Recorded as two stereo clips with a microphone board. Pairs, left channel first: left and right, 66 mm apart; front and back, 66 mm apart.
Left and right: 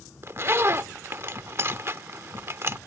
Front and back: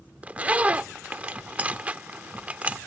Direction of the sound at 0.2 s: 120° right.